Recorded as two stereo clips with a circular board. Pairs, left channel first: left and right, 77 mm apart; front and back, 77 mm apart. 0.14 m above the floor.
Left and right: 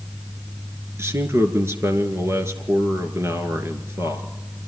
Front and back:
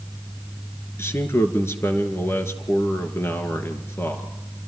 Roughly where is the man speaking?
Ahead right.